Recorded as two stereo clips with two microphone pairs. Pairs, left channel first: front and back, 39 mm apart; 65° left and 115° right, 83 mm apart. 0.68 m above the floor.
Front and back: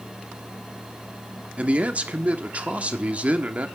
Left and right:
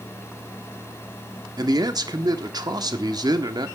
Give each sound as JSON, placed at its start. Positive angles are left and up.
{"t": 1.6, "sound": "a man speaking", "azimuth_deg": -135, "distance_m": 1.3}